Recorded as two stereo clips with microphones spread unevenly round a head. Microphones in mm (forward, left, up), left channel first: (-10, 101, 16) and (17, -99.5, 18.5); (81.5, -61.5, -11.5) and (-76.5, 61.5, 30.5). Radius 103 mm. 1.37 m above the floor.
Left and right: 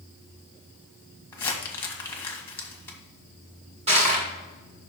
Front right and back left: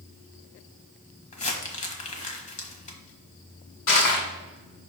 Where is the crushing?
20° right, 2 m.